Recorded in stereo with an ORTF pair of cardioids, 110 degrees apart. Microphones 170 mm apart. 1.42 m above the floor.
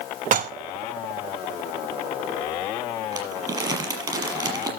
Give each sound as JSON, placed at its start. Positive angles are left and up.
{"t": 0.3, "sound": "dishes clattering", "azimuth_deg": -55, "distance_m": 1.4}
{"t": 3.1, "sound": "crumpling", "azimuth_deg": -25, "distance_m": 5.5}